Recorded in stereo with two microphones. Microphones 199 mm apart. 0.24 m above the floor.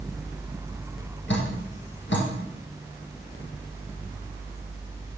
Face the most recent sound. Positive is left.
turn(degrees=70)  # may be behind; listen again after turning